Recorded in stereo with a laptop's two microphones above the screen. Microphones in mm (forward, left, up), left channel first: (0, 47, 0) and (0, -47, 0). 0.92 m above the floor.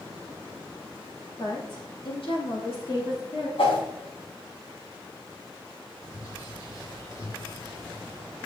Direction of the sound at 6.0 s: 40° left (ahead or behind).